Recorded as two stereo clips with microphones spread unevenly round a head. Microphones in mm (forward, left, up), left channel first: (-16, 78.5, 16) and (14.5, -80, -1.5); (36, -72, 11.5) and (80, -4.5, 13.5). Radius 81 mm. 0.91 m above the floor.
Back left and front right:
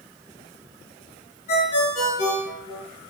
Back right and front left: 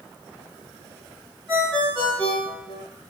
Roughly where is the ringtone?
Behind left.